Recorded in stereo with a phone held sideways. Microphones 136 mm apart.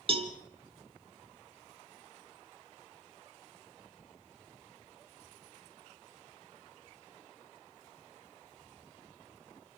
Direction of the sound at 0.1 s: 40° right (ahead or behind).